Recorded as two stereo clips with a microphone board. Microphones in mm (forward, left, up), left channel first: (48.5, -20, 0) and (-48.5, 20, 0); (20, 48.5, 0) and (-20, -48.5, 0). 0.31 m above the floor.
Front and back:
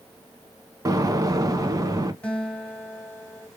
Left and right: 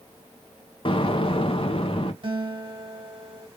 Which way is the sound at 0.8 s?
100° left.